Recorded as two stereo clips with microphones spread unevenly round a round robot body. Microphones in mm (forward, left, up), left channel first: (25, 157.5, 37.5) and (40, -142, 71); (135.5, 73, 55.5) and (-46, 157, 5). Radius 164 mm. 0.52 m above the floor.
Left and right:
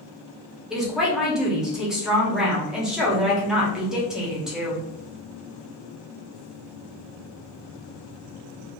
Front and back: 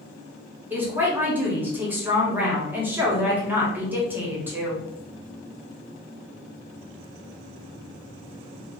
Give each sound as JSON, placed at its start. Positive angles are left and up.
{"t": 0.7, "sound": "a woman speaking", "azimuth_deg": 175, "distance_m": 1.0}